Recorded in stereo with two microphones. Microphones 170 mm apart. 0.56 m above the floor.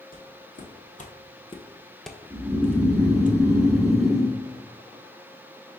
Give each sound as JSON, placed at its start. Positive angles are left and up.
{"t": 0.1, "sound": "footsteps", "side_deg": 65, "distance_m": 1.3}
{"t": 2.3, "sound": "snoring", "side_deg": 0, "distance_m": 1.2}